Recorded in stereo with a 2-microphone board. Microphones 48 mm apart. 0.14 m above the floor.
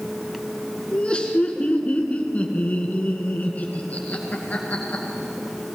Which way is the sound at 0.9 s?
20° left (ahead or behind).